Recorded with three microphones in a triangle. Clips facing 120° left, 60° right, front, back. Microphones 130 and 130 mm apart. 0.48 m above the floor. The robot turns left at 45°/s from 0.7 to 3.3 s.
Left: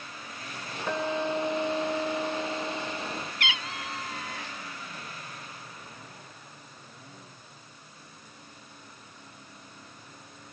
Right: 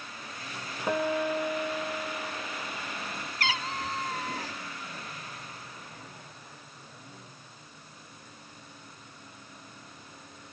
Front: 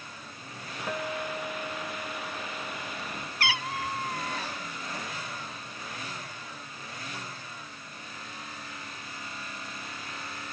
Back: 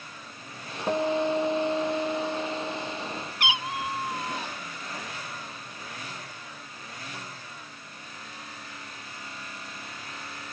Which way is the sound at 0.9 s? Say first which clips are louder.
Right 1 dB, back 9 dB; 130° right.